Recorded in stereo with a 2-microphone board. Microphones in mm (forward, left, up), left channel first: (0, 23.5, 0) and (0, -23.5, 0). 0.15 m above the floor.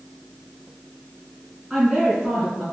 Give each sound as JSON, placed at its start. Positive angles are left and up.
{"t": 1.7, "sound": "a woman speaking", "side_deg": -5, "distance_m": 1.9}